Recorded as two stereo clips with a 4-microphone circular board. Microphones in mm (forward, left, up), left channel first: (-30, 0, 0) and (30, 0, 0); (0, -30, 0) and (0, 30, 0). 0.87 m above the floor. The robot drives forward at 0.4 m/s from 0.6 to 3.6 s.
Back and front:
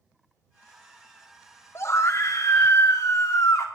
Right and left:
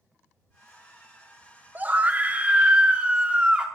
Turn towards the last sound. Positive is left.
turn(degrees=160)